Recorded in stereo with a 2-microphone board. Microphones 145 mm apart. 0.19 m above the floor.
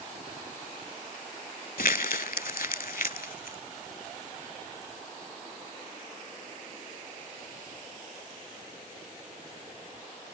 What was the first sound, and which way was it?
Crumpling, 80° left.